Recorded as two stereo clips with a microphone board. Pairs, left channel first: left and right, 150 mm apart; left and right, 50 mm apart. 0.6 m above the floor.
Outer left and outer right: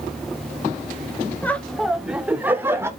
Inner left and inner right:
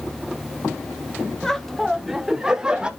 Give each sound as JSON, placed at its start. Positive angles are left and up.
{"t": 1.4, "sound": "laughter", "side_deg": 10, "distance_m": 1.0}